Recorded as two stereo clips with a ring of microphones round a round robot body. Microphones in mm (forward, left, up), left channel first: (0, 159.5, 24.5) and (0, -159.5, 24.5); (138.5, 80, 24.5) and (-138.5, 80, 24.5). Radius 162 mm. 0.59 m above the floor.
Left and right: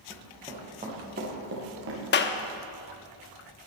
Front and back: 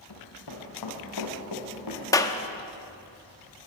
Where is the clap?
70° left, 1.0 m.